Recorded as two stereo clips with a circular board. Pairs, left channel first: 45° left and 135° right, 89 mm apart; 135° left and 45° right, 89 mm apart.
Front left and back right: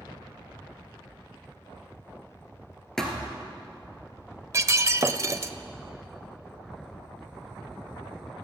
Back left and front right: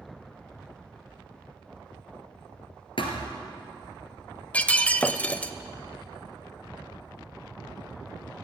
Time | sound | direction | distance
3.0 | a thud | 130° left | 2 m
4.5 | breaking glass | 160° right | 0.5 m